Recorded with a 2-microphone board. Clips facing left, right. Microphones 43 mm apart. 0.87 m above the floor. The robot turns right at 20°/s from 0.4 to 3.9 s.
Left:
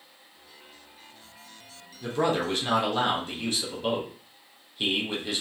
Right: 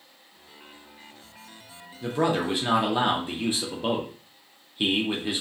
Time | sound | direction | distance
2.0 | a man speaking | 5° right (ahead or behind) | 0.6 m